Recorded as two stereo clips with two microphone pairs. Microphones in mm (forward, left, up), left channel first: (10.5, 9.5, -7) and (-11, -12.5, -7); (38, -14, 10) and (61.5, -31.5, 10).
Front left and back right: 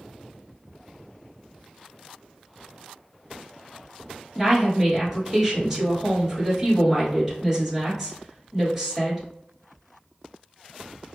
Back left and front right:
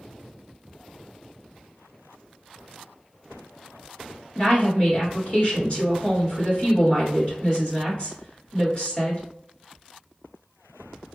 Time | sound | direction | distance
4.3 | a woman speaking | 145° left | 1.6 m